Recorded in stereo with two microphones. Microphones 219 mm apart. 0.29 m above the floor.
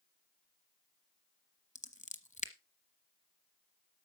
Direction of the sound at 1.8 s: 35° left (ahead or behind).